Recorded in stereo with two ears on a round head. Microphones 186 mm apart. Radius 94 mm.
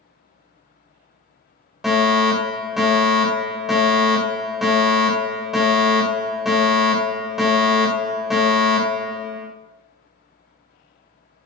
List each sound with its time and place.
1.8 s a fire alarm: centre (ahead or behind), 5 m